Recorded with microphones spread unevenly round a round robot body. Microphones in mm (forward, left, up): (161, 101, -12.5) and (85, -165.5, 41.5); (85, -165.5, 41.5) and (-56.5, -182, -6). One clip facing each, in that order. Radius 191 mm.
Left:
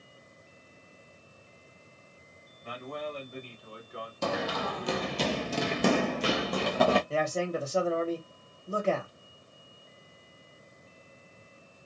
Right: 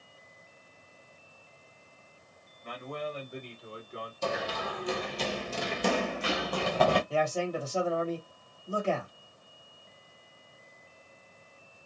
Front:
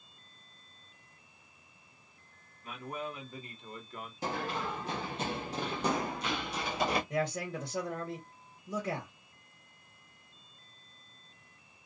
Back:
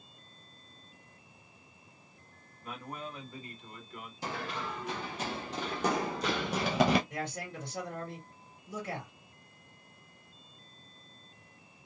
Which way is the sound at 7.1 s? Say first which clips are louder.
Even, front 5 dB; 10° left.